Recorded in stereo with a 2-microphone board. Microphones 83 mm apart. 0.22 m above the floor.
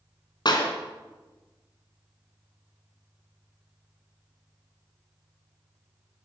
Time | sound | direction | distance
0.5 | a clap | 60° left (ahead or behind) | 2 m